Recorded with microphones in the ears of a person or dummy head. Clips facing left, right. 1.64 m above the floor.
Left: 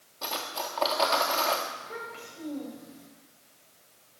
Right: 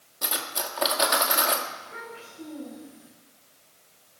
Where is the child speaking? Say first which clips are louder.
Left 1 dB; 70° left (ahead or behind), 8 m.